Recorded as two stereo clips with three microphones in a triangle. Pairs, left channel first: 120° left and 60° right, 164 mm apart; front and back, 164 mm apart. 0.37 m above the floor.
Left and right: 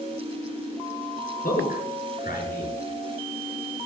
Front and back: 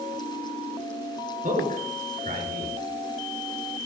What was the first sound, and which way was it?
A man speaking, 145° left.